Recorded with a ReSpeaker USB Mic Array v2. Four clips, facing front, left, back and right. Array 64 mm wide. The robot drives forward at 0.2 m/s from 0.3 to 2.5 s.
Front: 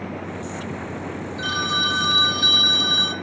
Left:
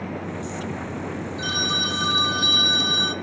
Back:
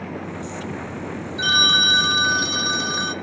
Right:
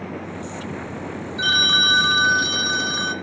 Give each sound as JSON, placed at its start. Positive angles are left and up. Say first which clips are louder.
{"t": 1.4, "sound": "a phone ringing", "louder": "right 8 dB, back 4 dB", "azimuth_deg": -120, "distance_m": 1.1}